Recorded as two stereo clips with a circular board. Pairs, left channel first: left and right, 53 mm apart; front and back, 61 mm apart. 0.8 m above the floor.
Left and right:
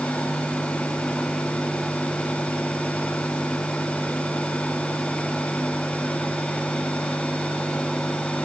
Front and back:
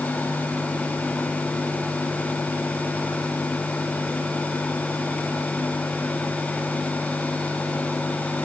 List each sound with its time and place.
Only background noise.